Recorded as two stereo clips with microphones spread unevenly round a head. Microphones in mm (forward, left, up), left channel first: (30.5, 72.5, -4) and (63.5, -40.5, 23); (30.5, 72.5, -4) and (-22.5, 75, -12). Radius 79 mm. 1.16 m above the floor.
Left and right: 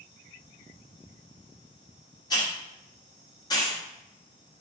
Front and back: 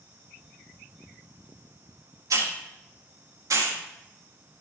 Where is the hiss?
175° left, 1.4 m.